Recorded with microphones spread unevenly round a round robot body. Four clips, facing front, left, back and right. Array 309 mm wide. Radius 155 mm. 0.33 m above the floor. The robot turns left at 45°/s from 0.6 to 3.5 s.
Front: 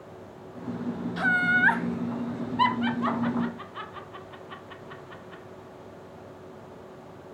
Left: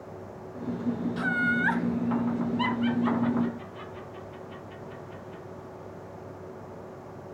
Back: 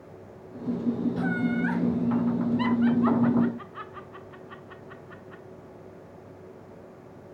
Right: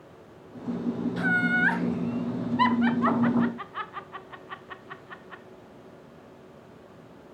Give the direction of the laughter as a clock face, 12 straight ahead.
12 o'clock.